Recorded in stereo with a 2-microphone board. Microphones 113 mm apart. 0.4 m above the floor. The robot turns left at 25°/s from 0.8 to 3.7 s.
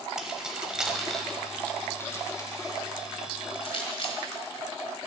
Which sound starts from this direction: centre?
Keys jangling, at 0.2 s.